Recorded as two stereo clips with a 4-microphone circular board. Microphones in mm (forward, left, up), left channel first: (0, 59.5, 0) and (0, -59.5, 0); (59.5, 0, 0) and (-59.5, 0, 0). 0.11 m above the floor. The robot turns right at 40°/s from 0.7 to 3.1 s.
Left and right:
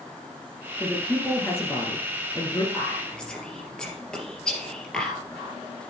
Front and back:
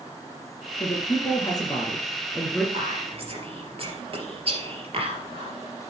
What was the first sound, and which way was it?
A man speaking, 5° left.